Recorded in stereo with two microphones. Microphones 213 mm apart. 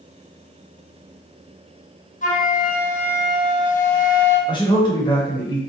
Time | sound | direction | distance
2.2 | a flute | 35° left (ahead or behind) | 0.6 m
4.5 | a man speaking | 20° left (ahead or behind) | 0.8 m